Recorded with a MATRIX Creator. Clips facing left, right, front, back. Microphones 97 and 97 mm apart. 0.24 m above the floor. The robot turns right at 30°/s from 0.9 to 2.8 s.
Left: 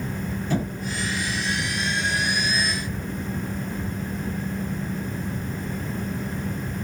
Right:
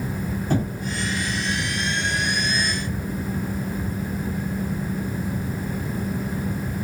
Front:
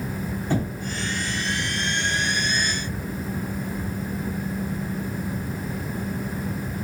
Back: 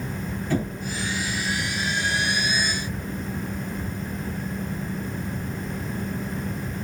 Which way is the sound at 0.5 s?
55° right.